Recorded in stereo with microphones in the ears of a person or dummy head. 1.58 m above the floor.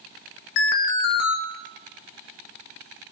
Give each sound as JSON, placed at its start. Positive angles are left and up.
{"t": 0.6, "sound": "an alarm", "side_deg": 65, "distance_m": 1.4}